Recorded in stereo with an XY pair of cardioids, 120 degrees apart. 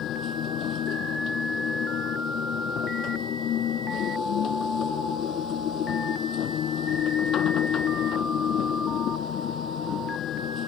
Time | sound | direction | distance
0.0 | a machine running | 60° left | ?